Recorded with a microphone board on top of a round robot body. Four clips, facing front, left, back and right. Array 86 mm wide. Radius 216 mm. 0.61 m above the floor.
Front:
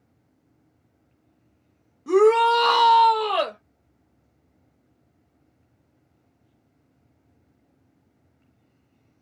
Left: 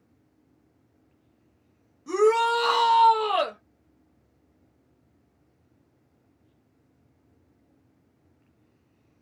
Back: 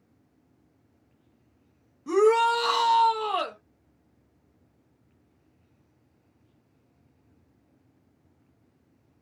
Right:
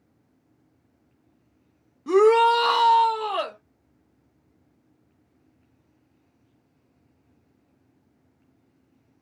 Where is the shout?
85° right, 1.1 m; by 3.6 s 35° left, 1.3 m.